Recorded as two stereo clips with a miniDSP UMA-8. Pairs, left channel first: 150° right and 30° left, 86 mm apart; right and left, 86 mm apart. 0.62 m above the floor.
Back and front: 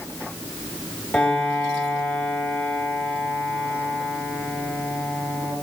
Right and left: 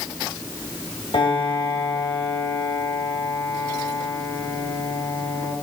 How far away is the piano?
About 2.5 m.